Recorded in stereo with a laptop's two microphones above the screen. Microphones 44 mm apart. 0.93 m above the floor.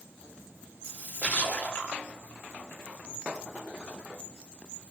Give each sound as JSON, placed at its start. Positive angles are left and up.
{"t": 0.8, "sound": "a splash", "side_deg": 40, "distance_m": 1.3}